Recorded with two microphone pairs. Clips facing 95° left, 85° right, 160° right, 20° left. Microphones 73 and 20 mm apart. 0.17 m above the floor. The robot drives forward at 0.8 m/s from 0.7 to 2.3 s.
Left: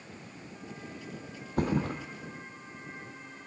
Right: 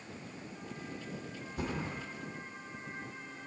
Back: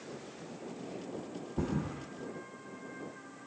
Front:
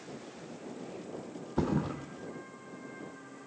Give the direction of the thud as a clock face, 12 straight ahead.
10 o'clock.